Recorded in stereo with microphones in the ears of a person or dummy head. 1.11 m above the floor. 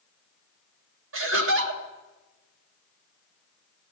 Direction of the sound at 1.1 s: 60° right (ahead or behind).